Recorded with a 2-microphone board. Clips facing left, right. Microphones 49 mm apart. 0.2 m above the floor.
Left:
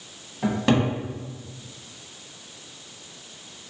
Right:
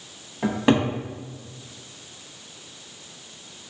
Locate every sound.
0.4 s a cupboard door: 15° right (ahead or behind), 0.8 m